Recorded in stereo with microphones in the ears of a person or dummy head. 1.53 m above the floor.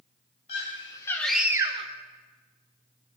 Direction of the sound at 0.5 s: 35° left (ahead or behind).